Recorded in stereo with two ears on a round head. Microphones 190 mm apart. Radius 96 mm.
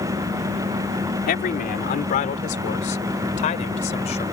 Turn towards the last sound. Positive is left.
turn(degrees=30)  # may be behind; listen again after turning